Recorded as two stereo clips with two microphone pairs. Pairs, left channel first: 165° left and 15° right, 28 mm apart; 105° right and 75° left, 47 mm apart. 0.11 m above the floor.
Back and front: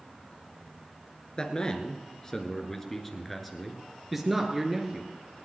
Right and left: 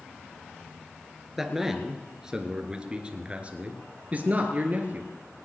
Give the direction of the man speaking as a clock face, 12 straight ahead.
7 o'clock.